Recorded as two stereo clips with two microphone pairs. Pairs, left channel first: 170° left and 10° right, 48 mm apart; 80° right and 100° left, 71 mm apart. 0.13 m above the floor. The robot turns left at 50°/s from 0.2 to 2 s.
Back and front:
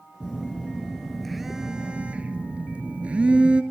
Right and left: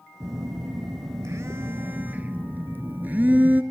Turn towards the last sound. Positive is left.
turn(degrees=45)